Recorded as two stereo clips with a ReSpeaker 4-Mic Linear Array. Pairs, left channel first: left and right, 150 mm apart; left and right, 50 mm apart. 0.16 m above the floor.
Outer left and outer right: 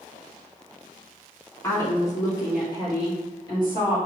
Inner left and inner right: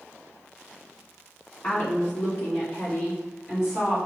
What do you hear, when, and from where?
1.6 s a woman speaking: 20° left (ahead or behind), 1.2 m; by 4.0 s 25° left (ahead or behind), 3 m